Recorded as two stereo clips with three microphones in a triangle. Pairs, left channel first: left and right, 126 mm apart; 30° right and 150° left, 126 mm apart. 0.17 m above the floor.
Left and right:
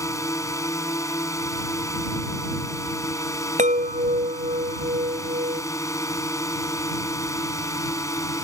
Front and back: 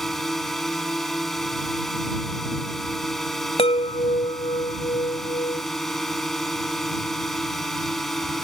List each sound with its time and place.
0.0 s a drone: 55° left
3.6 s a chime: 70° right